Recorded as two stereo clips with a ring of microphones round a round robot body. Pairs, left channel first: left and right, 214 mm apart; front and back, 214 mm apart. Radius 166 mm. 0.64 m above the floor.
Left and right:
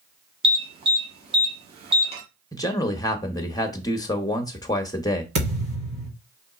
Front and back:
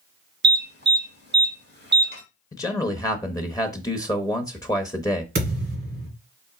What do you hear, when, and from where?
0.4 s an alarm: 150° right, 1.3 m
2.5 s a man speaking: 45° left, 0.8 m
5.3 s a thud: 125° right, 1.6 m